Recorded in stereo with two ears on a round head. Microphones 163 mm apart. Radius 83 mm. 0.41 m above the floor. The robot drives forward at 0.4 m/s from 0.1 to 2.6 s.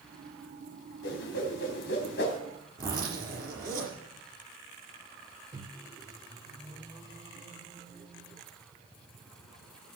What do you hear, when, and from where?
1.0 s a whoosh: 70° left (ahead or behind), 3 m; by 2.4 s 65° left (ahead or behind), 3.5 m
2.8 s a zipper: 25° right (ahead or behind), 6 m
5.5 s a microwave: 25° right (ahead or behind), 1.2 m